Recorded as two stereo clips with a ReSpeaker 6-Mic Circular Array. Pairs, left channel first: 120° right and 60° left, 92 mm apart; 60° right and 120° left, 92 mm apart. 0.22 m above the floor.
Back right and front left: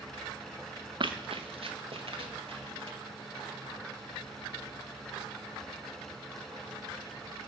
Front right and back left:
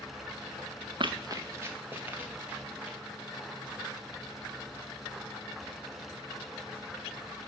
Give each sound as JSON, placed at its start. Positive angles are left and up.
{"t": 1.0, "sound": "running footsteps", "azimuth_deg": 90, "distance_m": 0.8}